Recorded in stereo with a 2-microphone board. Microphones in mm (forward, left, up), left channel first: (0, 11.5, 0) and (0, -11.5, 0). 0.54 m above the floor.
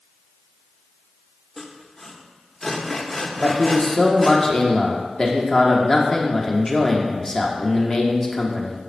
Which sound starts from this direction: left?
A man speaking, at 3.4 s.